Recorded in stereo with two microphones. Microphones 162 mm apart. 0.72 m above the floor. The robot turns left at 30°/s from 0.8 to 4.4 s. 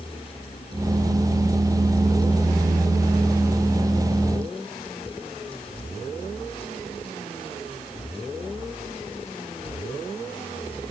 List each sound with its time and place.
Only background noise.